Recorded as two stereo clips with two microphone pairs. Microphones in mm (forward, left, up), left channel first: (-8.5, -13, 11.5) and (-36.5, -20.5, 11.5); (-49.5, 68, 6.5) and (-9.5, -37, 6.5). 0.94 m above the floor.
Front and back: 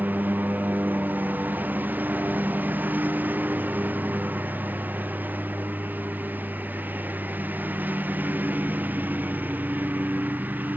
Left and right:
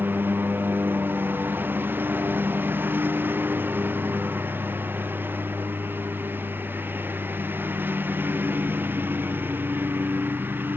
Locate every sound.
0.0 s a lawn mower: 140° right